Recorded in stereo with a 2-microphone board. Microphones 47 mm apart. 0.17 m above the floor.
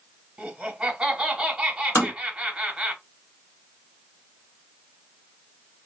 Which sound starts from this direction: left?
Tapping, at 1.9 s.